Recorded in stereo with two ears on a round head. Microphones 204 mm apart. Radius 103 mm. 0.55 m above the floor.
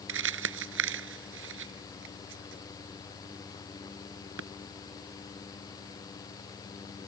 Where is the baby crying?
I don't hear a baby crying.